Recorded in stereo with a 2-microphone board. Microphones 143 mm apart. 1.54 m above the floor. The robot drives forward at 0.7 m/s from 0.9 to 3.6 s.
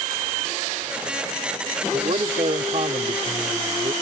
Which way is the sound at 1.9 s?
50° right (ahead or behind).